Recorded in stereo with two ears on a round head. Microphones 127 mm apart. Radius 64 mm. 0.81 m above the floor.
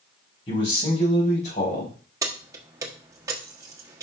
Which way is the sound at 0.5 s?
40° left (ahead or behind).